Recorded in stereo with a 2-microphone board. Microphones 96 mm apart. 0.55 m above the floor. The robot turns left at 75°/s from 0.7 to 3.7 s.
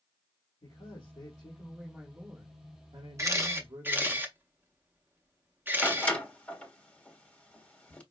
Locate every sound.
0.6 s a man speaking: 90° left, 1.8 m; by 4.2 s 135° right, 1.8 m
3.2 s a camera shutter: 30° right (ahead or behind), 0.8 m; by 6.2 s 20° right (ahead or behind), 0.8 m
5.8 s a door slam: 10° left (ahead or behind), 1.2 m